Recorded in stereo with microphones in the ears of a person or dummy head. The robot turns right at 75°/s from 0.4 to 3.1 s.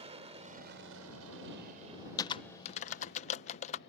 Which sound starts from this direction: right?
An aircraft, at 0.0 s.